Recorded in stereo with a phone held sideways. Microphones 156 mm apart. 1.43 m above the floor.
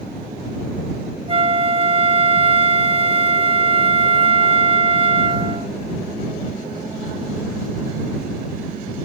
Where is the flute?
35° right (ahead or behind).